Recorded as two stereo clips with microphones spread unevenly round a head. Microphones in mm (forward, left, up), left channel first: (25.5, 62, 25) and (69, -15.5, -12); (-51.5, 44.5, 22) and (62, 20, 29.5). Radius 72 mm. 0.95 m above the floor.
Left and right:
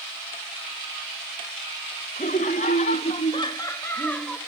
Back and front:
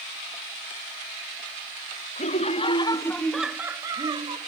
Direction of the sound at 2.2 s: 145° left.